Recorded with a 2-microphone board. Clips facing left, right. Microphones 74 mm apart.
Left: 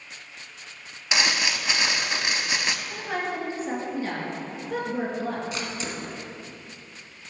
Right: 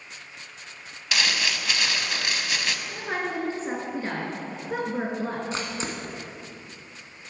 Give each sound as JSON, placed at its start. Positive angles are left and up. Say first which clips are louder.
{"t": 1.1, "sound": "crumpling", "louder": "left 2 dB", "side_deg": 20, "distance_m": 0.6}
{"t": 2.9, "sound": "a woman speaking", "louder": "even", "side_deg": -30, "distance_m": 2.5}
{"t": 5.5, "sound": "a camera shutter", "louder": "right 1 dB", "side_deg": -30, "distance_m": 1.1}